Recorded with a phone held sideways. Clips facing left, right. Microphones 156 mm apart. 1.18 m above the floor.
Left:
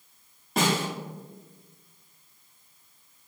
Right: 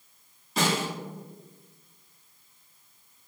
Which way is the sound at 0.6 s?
55° left (ahead or behind).